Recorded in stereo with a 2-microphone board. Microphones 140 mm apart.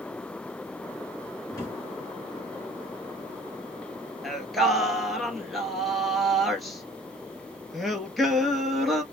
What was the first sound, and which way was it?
A drawer, 20° left (ahead or behind).